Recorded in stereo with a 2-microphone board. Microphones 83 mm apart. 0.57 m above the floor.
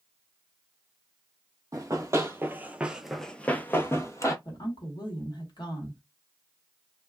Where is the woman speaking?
60° left (ahead or behind), 1.4 m.